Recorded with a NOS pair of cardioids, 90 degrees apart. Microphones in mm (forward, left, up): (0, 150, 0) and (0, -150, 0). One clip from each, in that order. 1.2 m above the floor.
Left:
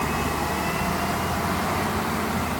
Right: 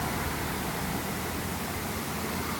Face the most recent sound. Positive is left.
No sound to turn to.